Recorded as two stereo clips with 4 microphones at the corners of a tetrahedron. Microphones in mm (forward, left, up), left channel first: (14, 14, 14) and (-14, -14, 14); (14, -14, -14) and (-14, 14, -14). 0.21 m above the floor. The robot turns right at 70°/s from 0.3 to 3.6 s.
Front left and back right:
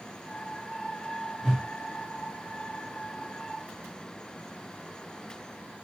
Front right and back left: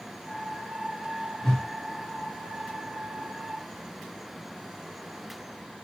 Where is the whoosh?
20° right, 1.0 m; by 1.6 s 5° right, 1.0 m.